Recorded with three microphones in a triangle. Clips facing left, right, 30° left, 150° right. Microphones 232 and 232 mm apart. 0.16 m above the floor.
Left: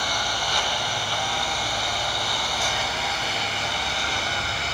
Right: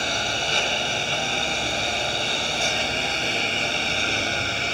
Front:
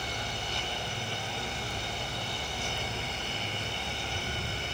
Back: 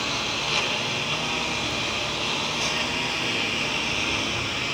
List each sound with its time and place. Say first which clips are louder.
0.0 s a lawn mower: right 2 dB, back 7 dB; 155° right; by 4.7 s 150° right